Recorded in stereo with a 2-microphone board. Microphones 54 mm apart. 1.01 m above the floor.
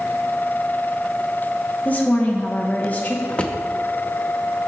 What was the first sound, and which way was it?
A woman speaking, 30° left (ahead or behind).